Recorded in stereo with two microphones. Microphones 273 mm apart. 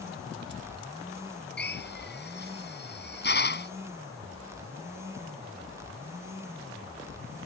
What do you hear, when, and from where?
1.6 s a drill: 40° left (ahead or behind)